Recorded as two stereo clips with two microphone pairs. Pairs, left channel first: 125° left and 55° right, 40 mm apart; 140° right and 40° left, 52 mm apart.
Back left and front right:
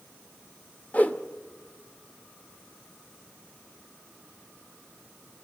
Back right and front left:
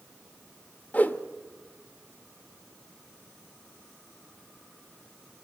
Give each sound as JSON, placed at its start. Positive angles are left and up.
{"t": 0.9, "sound": "a whoosh", "azimuth_deg": 165, "distance_m": 1.1}